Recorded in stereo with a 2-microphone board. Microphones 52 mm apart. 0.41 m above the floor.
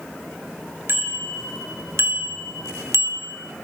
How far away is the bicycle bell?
About 5 m.